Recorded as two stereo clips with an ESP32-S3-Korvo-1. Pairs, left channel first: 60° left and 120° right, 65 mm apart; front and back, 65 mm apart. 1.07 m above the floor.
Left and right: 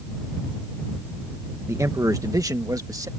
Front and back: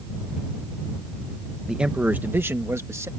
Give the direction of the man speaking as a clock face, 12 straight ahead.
3 o'clock.